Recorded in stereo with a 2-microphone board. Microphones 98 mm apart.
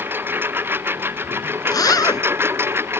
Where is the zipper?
40° left (ahead or behind).